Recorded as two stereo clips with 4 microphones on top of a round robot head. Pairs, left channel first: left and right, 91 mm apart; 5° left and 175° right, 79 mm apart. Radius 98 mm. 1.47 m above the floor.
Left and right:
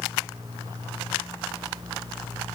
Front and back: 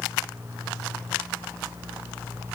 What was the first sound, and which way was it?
Only background noise.